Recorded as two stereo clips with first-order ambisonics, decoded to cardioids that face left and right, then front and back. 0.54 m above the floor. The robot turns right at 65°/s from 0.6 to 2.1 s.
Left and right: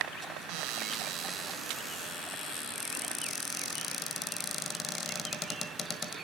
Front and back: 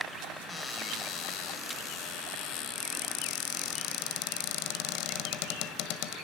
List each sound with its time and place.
0.5 s a cupboard door: 75° right, 1.5 m; by 6.1 s 20° left, 1.5 m